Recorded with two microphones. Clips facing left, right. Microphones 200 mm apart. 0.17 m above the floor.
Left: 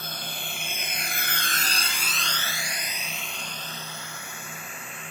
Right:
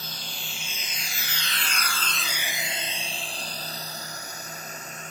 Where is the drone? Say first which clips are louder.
Left 4 dB; 55° left (ahead or behind); by 5.1 s 40° right (ahead or behind).